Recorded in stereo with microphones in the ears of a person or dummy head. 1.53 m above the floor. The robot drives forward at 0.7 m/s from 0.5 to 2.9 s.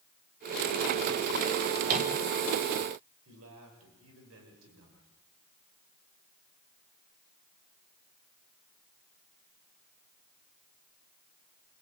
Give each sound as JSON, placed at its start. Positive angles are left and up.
{"t": 1.9, "sound": "a microwave", "side_deg": -50, "distance_m": 3.0}
{"t": 3.2, "sound": "a man speaking", "side_deg": -85, "distance_m": 7.5}